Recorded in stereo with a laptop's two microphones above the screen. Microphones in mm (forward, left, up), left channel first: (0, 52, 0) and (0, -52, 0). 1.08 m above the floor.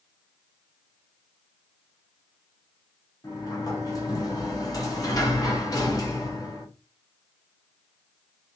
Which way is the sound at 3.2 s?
35° left (ahead or behind).